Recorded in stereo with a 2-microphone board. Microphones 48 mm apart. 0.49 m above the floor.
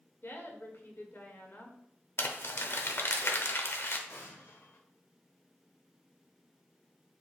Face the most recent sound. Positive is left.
turn(degrees=60)  # may be behind; listen again after turning